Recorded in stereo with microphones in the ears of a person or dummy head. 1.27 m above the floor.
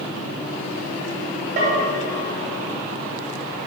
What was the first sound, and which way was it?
A bell, 40° right (ahead or behind).